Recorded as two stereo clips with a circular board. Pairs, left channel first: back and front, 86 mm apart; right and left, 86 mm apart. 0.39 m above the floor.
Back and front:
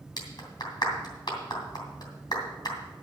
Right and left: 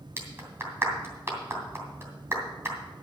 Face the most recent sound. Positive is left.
turn(degrees=150)